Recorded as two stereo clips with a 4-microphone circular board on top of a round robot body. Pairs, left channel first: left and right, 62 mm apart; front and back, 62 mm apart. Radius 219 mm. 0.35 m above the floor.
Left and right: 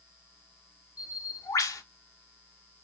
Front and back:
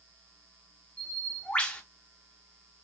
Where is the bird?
75° left, 1.3 m.